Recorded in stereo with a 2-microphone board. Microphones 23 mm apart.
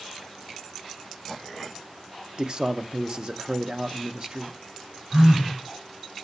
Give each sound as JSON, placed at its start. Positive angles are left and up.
{"t": 2.4, "sound": "a man speaking", "side_deg": -40, "distance_m": 0.7}
{"t": 5.1, "sound": "a phone buzzing", "side_deg": -50, "distance_m": 4.0}